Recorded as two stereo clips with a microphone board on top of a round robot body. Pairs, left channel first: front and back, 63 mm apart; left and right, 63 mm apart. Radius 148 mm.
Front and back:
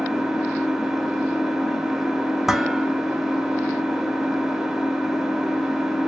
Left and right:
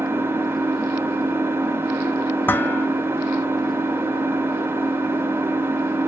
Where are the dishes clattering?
100° left, 0.6 m.